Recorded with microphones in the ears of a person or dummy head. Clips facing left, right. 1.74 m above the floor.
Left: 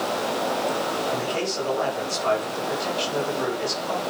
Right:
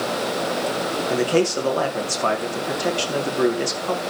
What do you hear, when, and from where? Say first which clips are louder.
1.1 s a man speaking: right 7 dB; 70° right (ahead or behind), 4.5 m